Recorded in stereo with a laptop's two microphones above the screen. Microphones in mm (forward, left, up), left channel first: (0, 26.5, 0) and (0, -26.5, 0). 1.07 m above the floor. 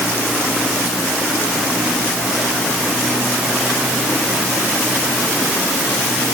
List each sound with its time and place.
Only background noise.